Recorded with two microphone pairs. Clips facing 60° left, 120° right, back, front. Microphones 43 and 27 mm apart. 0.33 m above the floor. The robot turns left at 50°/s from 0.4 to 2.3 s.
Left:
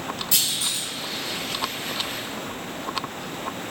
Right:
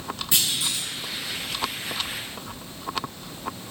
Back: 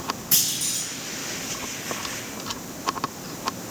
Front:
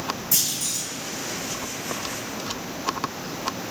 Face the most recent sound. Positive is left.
turn(degrees=85)